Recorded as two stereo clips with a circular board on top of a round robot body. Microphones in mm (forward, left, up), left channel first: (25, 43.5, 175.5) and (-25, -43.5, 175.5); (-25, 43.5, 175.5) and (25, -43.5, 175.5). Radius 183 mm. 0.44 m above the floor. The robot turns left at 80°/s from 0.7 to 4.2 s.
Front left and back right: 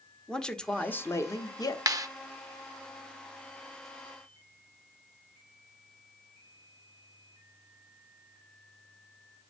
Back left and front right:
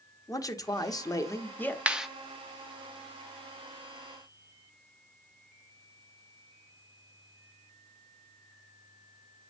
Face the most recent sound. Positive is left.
turn(degrees=45)